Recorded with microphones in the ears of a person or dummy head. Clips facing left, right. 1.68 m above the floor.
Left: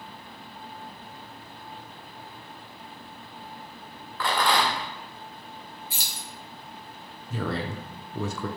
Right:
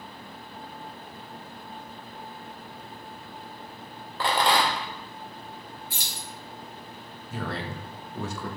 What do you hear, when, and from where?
4.2 s a rattle: 25° right (ahead or behind), 0.5 m
5.9 s keys jangling: 55° left (ahead or behind), 1.1 m
7.3 s a man speaking: 80° left, 0.6 m